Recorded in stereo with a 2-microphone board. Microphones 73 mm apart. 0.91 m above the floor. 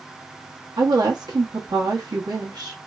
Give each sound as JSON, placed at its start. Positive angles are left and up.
{"t": 0.8, "sound": "a woman speaking", "side_deg": -70, "distance_m": 1.0}